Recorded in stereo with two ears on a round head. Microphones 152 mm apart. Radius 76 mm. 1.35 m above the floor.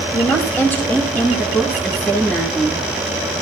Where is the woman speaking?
15° left (ahead or behind), 2.5 m; by 2.8 s 5° left (ahead or behind), 3.5 m.